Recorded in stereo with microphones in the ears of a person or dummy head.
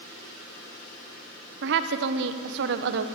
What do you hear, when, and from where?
1.6 s a woman speaking: 60° right (ahead or behind), 1.0 m